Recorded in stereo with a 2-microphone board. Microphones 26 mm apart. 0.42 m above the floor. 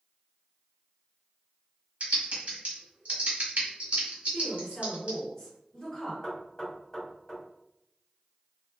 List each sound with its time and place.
2.0 s typing on a keyboard: 65° right (ahead or behind), 1.3 m
4.3 s a woman speaking: 20° left (ahead or behind), 1.9 m
6.2 s knocking: 25° left (ahead or behind), 1.6 m